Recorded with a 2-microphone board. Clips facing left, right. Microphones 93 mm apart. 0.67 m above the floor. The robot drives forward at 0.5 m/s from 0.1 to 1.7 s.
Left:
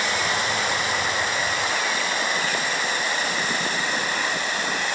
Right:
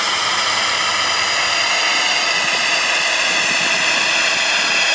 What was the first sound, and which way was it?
A drone, 70° right (ahead or behind).